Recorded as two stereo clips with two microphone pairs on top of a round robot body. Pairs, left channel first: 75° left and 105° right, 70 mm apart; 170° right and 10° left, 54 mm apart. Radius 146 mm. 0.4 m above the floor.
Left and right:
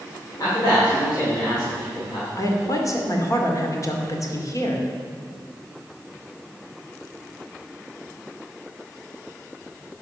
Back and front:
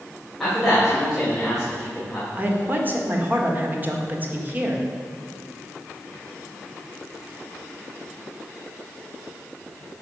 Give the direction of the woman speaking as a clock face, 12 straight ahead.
10 o'clock.